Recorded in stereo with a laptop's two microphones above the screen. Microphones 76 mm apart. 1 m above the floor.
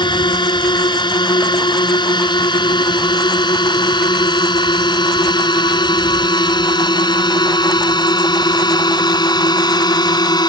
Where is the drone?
80° left; by 10.5 s 65° left (ahead or behind).